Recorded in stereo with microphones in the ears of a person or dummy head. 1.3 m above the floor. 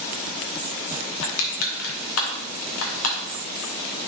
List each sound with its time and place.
1.2 s crushing: 85° left, 1.5 m